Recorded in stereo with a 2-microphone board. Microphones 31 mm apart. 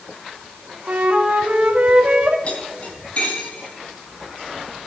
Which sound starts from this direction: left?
Cutlery clinking, at 2.5 s.